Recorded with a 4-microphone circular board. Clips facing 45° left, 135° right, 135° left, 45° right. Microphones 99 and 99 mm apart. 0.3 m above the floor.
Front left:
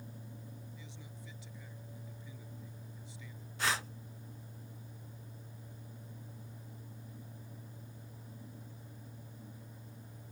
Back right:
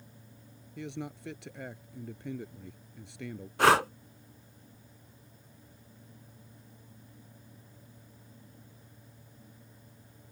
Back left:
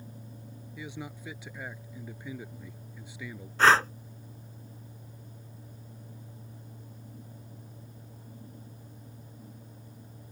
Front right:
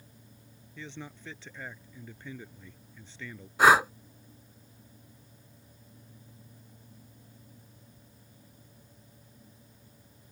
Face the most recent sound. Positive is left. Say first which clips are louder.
# back right 13 dB, front right 1 dB
turn(degrees=-125)